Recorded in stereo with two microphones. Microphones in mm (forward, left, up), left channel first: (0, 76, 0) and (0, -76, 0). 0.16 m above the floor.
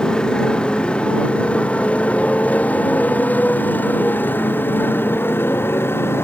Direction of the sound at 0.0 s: 5° left (ahead or behind).